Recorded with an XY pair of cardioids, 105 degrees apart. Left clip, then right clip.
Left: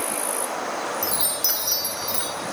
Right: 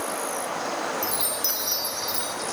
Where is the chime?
20° left, 3.5 m.